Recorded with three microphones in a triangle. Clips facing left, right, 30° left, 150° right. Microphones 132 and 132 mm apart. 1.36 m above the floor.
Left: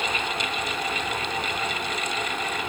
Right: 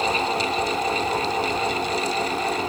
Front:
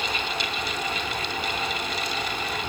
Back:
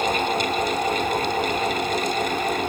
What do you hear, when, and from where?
Only background noise.